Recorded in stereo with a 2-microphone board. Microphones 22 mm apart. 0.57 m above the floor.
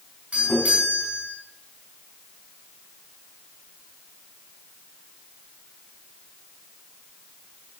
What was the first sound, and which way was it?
A doorbell, 75° right (ahead or behind).